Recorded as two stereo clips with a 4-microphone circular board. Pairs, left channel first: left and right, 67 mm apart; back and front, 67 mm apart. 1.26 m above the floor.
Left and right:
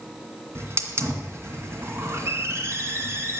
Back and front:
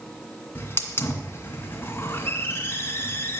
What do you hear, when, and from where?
0.6 s a hiss: 130° right, 2 m